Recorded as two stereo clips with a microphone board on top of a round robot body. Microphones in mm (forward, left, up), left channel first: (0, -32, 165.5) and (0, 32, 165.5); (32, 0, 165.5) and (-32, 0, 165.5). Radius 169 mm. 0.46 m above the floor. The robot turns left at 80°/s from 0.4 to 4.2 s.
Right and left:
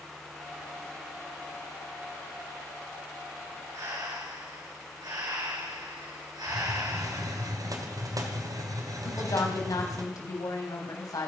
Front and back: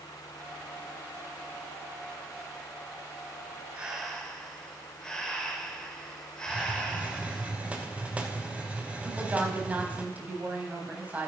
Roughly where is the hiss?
Left.